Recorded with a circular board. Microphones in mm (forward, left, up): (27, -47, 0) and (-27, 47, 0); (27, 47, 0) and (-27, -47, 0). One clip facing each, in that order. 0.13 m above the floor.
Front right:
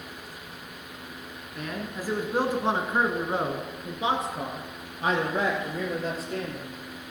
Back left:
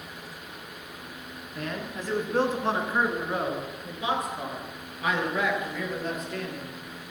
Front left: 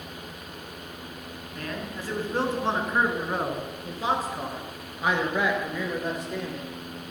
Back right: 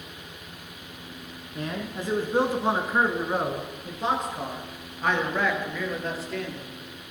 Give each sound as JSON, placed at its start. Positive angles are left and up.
{"t": 1.6, "sound": "a man speaking", "azimuth_deg": -140, "distance_m": 1.3}